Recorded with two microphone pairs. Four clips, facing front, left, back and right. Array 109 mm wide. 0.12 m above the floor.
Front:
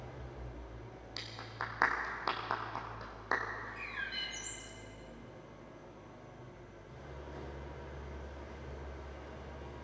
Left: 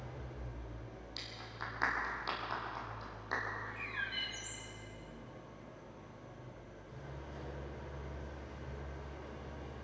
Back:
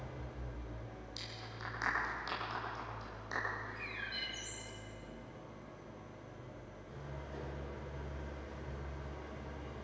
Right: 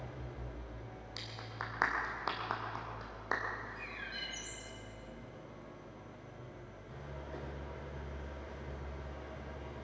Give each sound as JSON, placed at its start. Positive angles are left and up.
{"t": 0.0, "sound": "an engine running", "azimuth_deg": -105, "distance_m": 9.5}
{"t": 1.2, "sound": "a clap", "azimuth_deg": -40, "distance_m": 5.0}
{"t": 3.6, "sound": "a bird", "azimuth_deg": 50, "distance_m": 3.0}